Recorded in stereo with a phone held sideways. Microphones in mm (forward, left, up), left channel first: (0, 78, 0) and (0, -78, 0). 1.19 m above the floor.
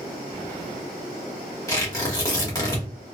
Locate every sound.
1.7 s tearing paper: 20° left (ahead or behind), 1.3 m